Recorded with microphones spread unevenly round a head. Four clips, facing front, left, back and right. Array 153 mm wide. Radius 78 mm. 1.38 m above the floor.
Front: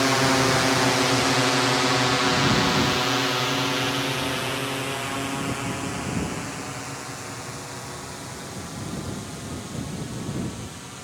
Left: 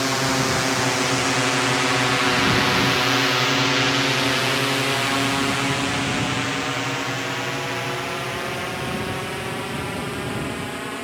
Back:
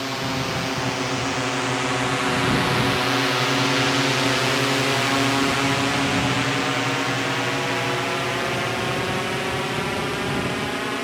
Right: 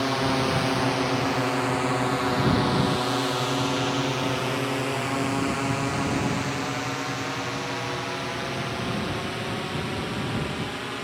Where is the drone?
10° left; by 11.0 s 170° left.